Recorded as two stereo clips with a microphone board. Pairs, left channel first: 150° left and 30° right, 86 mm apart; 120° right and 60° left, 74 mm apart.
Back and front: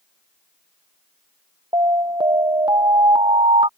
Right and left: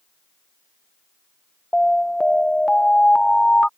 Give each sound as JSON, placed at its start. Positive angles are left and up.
{"t": 1.7, "sound": "an alarm", "azimuth_deg": -40}